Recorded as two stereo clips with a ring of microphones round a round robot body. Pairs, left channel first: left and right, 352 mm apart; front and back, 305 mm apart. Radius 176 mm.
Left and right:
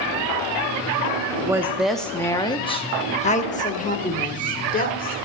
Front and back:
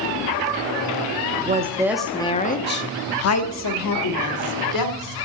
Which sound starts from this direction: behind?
A woman speaking, at 1.4 s.